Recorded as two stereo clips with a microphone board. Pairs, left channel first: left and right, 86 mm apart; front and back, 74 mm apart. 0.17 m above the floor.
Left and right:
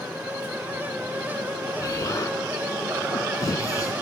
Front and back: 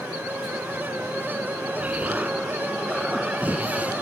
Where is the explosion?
120° left, 1.3 m.